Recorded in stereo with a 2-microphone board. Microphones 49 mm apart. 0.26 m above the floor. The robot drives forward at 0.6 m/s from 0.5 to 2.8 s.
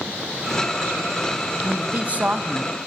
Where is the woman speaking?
35° right (ahead or behind), 1.3 m; by 2.7 s 25° right (ahead or behind), 1.6 m.